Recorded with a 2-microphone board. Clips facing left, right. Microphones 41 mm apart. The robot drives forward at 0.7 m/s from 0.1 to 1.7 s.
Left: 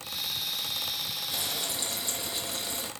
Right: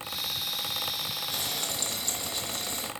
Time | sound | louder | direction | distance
1.3 | frying | even | 15° left (ahead or behind) | 5 m